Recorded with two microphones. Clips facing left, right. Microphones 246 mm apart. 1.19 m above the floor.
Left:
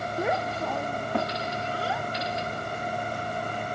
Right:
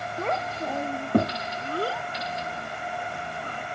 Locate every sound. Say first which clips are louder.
0.2 s a child speaking: left 1 dB; 15° left (ahead or behind); by 3.6 s 75° right (ahead or behind)